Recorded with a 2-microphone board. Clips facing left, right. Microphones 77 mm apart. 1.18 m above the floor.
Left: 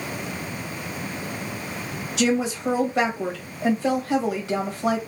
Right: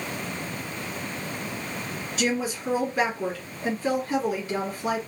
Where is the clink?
No clink in this recording.